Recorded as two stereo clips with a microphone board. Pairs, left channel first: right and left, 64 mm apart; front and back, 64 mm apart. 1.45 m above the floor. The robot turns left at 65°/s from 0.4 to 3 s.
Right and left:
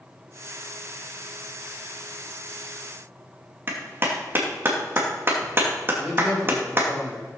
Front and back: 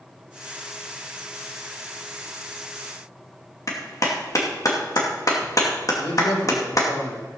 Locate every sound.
3.7 s a clap: 35° left, 2.5 m
6.0 s a man speaking: 5° left, 6.5 m